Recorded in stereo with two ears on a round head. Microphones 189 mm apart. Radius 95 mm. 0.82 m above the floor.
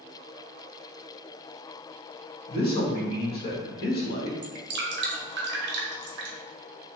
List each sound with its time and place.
2.5 s a man speaking: 50° left (ahead or behind), 1.3 m
4.4 s dripping: 55° right (ahead or behind), 0.9 m